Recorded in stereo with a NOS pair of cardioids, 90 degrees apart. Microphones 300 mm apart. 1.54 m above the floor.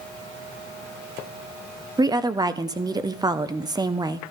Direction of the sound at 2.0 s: 15° right.